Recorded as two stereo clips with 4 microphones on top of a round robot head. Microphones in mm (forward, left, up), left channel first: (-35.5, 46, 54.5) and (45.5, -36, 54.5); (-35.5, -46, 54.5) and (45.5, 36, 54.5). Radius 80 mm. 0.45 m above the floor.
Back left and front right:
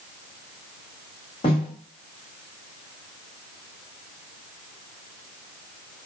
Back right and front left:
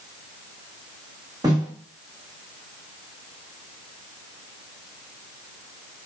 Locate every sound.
1.4 s a snare drum: 100° left, 1.2 m